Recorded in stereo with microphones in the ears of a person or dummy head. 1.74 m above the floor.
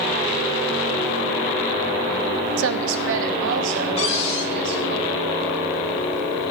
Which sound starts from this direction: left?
A cupboard door, at 4.0 s.